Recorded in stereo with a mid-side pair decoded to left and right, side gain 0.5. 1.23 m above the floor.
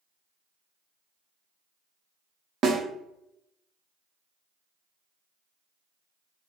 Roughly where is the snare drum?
Ahead right.